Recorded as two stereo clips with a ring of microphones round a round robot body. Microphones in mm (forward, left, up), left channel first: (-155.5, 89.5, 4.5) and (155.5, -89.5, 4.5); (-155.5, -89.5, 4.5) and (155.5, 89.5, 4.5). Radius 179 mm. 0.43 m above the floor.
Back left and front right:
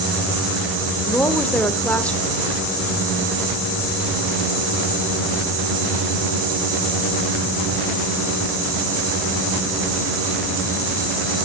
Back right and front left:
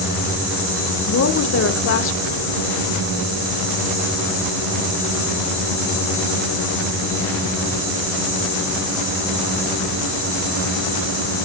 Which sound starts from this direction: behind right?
A woman speaking, at 1.1 s.